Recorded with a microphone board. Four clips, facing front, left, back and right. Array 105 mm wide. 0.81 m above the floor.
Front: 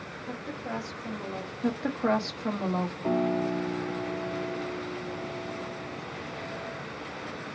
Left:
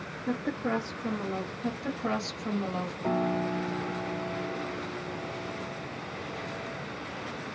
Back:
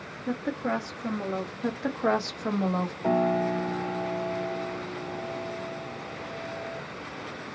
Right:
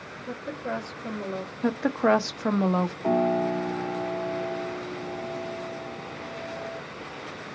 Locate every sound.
0.3 s a woman speaking: 155° left, 1.3 m
1.6 s a woman speaking: 100° right, 0.7 m
3.0 s a piano: 170° right, 1.1 m